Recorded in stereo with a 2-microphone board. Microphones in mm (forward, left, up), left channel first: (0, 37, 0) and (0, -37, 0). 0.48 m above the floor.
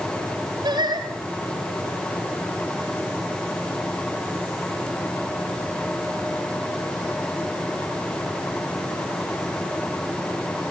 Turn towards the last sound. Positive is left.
turn(degrees=-70)  # may be behind; listen again after turning